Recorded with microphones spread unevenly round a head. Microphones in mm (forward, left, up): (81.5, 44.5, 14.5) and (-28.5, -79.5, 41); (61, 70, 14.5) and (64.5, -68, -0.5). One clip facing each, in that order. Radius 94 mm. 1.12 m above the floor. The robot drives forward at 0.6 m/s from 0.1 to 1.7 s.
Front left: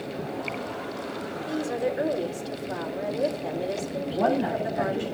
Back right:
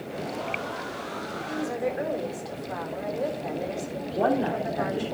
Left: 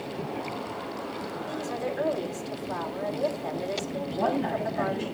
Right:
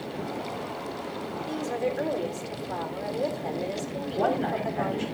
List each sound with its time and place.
1.5 s a woman speaking: 15° right, 4 m
4.1 s a woman speaking: 65° right, 4.5 m